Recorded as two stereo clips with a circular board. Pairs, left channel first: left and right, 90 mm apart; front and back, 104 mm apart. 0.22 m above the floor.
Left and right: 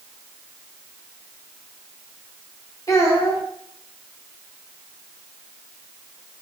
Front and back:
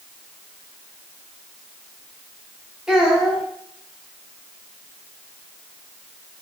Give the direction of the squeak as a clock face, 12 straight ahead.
I don't hear a squeak.